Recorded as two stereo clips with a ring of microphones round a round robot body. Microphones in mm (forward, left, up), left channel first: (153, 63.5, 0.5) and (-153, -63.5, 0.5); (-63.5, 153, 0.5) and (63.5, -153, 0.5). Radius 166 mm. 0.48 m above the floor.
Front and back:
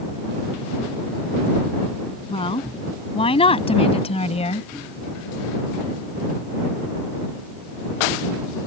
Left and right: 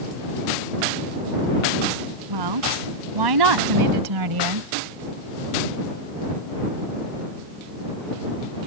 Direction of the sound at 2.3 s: 55° right.